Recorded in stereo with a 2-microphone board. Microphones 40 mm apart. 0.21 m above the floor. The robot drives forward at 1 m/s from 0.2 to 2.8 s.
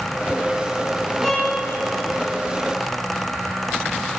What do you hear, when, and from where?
1.2 s a violin: 5° left (ahead or behind), 1.1 m